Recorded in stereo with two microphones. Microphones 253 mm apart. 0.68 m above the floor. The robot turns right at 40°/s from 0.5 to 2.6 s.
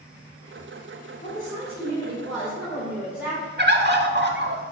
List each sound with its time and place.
1.2 s a woman speaking: 130° left, 2.5 m; by 3.5 s 170° right, 2.5 m
3.6 s a bird: 45° right (ahead or behind), 0.7 m